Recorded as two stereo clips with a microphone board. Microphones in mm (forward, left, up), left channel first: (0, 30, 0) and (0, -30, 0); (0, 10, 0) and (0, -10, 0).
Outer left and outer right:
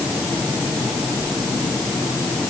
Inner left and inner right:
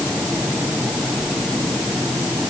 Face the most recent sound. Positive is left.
No sound to turn to.